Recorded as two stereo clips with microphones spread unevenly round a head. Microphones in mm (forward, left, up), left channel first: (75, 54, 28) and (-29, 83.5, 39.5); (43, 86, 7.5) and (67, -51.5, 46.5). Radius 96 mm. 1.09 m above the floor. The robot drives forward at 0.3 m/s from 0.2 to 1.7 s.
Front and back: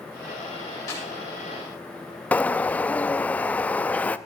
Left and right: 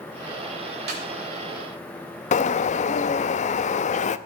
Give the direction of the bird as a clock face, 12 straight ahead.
10 o'clock.